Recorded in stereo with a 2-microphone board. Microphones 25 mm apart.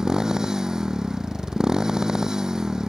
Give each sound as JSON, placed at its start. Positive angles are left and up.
{"t": 0.0, "sound": "a motorcycle", "side_deg": -25}